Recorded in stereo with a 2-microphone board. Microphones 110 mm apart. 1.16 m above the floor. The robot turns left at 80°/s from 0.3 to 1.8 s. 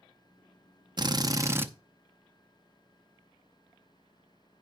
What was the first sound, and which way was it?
A drill, 100° right.